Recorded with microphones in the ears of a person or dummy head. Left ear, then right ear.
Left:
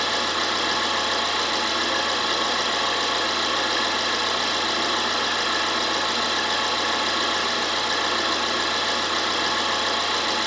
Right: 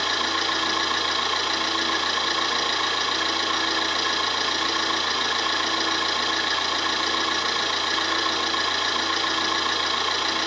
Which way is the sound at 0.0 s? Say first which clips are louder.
Even; 50° right (ahead or behind).